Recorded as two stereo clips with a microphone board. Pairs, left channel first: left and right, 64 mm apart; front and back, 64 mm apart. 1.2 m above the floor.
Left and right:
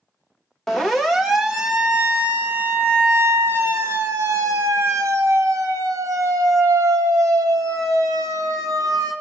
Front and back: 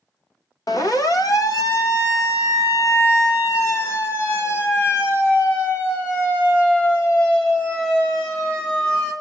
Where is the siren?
5° left, 2 m; by 9.1 s 70° right, 4.5 m.